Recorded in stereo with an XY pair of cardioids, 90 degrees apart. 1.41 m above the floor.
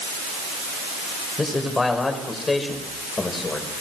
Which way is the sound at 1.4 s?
25° left.